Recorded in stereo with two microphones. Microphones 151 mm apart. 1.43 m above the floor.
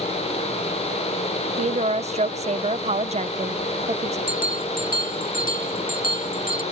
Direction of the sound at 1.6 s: 45° right (ahead or behind).